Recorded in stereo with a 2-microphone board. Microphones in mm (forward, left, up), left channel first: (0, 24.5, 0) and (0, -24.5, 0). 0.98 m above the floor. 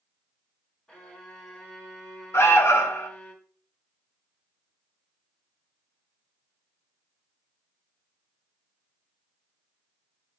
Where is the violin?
15° left (ahead or behind), 1.5 m.